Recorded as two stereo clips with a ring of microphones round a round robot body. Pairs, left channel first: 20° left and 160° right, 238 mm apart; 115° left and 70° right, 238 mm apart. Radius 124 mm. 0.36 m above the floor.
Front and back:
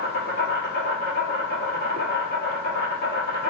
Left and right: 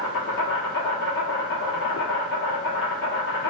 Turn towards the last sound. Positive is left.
turn(degrees=70)